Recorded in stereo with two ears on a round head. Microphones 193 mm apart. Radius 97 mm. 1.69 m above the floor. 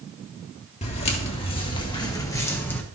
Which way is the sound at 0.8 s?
30° left (ahead or behind).